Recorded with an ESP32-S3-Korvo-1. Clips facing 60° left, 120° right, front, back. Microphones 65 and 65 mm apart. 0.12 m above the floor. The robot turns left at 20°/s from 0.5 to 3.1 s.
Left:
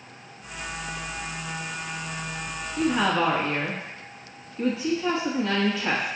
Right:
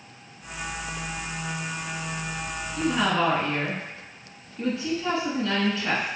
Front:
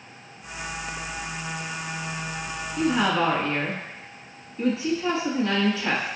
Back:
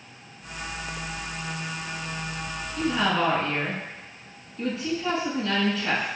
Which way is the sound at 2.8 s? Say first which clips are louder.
Left 1 dB, front 2 dB; 10° left.